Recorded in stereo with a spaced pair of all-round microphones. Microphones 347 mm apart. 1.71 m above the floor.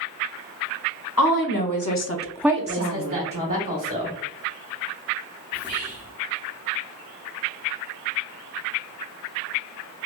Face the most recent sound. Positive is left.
turn(degrees=-10)  # may be behind; listen again after turning